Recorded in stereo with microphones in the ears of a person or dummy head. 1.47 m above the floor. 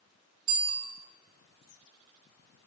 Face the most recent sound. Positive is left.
turn(degrees=-55)  # may be behind; listen again after turning